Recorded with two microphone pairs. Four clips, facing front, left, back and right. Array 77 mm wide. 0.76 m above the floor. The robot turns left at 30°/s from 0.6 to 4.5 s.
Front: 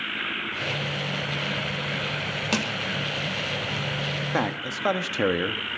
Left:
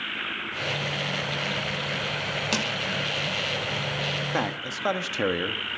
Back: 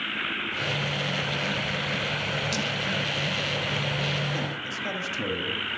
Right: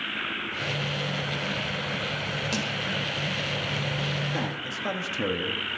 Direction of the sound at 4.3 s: 40° left.